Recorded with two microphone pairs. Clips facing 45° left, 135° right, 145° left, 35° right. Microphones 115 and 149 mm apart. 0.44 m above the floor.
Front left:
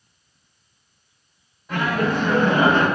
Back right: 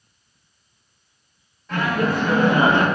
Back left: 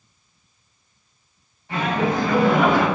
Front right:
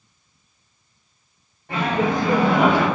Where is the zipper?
No zipper in this recording.